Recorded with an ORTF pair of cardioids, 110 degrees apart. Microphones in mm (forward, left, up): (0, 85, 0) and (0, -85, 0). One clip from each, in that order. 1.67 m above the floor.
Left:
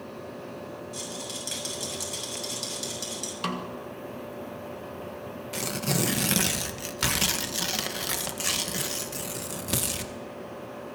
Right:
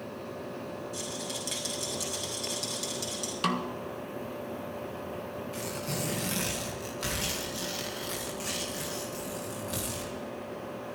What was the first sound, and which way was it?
A rattle, 15° left.